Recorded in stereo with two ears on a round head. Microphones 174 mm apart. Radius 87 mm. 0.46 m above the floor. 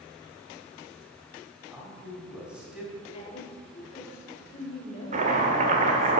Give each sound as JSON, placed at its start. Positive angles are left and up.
{"t": 1.7, "sound": "a man speaking", "side_deg": -5, "distance_m": 3.5}
{"t": 3.1, "sound": "a woman speaking", "side_deg": 30, "distance_m": 1.3}
{"t": 5.1, "sound": "chopping", "side_deg": -40, "distance_m": 1.5}